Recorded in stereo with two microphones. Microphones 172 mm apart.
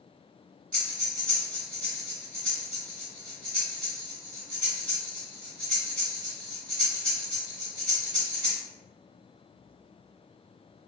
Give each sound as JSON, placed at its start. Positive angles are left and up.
{"t": 0.7, "sound": "breathing", "side_deg": 5, "distance_m": 1.4}